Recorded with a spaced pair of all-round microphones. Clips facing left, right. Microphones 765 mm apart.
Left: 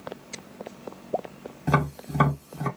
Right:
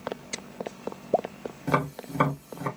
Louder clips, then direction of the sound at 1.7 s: Left 2 dB; 30° left (ahead or behind).